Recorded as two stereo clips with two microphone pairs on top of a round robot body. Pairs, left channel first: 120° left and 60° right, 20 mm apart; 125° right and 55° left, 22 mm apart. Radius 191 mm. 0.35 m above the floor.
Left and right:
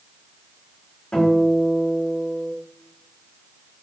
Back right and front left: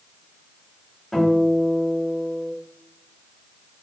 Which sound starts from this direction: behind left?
A guitar, at 1.1 s.